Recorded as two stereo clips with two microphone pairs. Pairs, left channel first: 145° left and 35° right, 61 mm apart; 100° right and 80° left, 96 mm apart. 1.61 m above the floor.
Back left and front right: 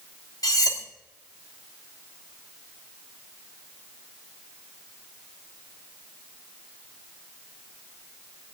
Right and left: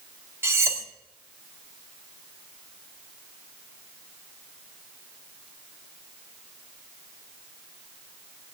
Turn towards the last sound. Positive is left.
turn(degrees=145)